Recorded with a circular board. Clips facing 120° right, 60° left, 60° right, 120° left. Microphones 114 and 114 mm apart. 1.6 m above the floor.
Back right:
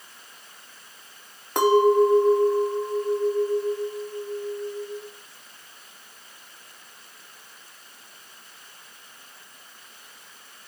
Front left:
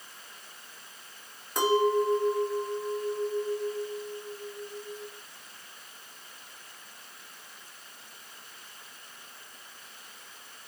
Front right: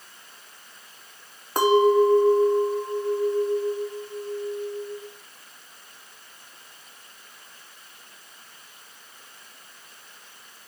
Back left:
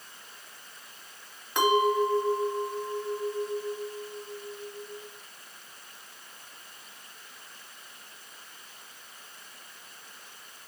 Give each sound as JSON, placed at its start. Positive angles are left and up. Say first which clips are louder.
{"t": 1.6, "sound": "a clink", "louder": "back right 7 dB, front right 6 dB", "azimuth_deg": -105, "distance_m": 2.0}